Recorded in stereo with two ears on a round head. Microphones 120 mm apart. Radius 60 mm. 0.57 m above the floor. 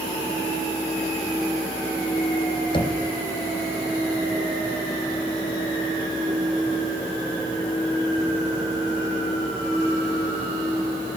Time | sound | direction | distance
2.7 | knocking | 40° left (ahead or behind) | 3.5 m